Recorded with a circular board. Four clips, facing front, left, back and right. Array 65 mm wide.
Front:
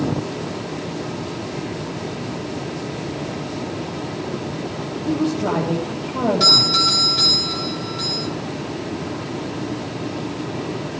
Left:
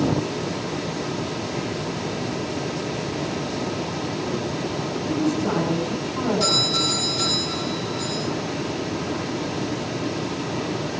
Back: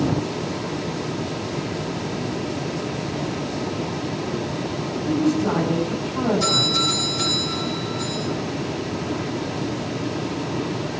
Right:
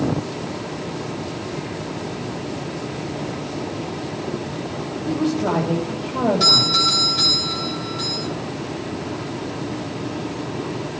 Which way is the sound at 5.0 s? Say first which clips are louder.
Right 2 dB, even; 45° right.